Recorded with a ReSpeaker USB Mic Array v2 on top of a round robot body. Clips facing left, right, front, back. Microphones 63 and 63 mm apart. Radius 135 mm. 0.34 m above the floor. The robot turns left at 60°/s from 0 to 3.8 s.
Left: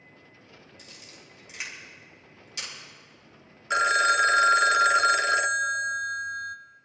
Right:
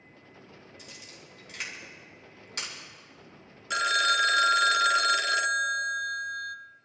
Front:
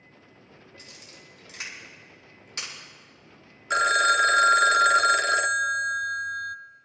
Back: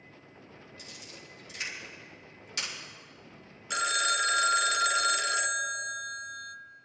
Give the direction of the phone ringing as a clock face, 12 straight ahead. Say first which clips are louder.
Left 4 dB, front 9 dB; 11 o'clock.